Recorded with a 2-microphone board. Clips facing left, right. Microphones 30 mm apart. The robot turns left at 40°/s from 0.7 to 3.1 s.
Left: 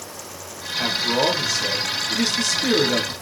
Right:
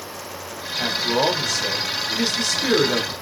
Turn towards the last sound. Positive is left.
turn(degrees=-60)